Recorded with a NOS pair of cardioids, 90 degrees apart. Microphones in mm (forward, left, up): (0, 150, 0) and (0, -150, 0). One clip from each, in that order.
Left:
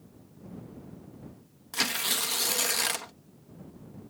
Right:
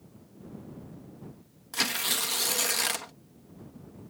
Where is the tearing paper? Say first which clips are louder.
Even; straight ahead.